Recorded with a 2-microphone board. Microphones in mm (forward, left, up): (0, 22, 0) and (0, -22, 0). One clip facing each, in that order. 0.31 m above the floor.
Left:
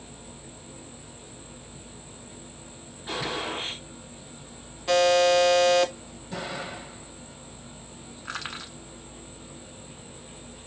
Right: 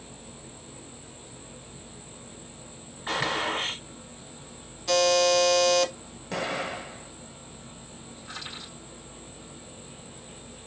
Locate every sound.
3.1 s a gunshot: 65° right (ahead or behind), 1.1 m
4.9 s a buzzer: 20° left (ahead or behind), 0.6 m
6.3 s an explosion: 70° right (ahead or behind), 0.9 m
8.2 s crushing: 75° left (ahead or behind), 1.1 m